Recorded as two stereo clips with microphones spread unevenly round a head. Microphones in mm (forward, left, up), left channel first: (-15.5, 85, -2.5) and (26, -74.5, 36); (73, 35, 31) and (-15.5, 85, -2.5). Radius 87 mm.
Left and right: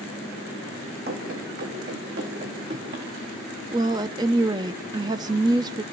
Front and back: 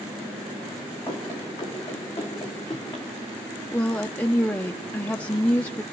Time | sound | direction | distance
1.1 | running footsteps | 100° right | 4.5 m
3.7 | a woman speaking | 65° right | 0.6 m